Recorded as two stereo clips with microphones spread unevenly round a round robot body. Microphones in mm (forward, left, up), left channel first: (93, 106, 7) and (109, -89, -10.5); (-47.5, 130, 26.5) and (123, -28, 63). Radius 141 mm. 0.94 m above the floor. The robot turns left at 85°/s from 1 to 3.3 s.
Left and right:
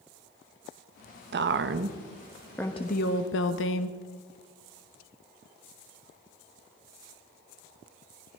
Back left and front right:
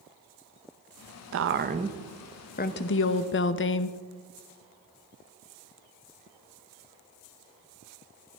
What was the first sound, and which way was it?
A woman speaking, 70° right.